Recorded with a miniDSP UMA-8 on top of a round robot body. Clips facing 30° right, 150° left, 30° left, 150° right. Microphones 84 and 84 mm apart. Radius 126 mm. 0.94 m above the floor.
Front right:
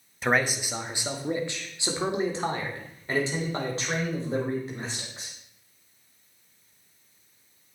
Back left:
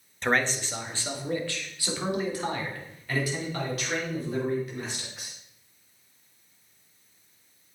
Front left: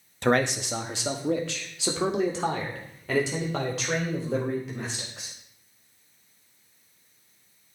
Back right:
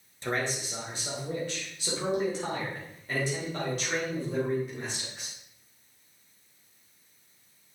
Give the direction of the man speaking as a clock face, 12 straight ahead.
10 o'clock.